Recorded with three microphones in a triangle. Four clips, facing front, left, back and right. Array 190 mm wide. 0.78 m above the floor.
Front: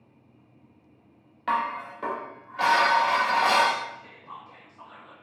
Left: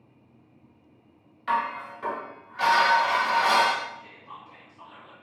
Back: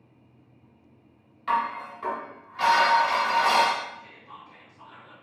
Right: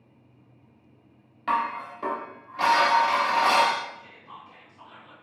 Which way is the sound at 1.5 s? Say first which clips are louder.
Right 1 dB, back 1 dB; 40° right.